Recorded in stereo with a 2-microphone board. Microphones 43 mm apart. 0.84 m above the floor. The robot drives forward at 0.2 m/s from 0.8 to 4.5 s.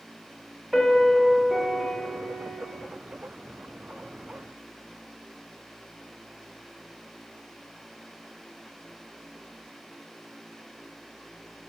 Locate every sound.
0.7 s a piano: 5° right (ahead or behind), 0.7 m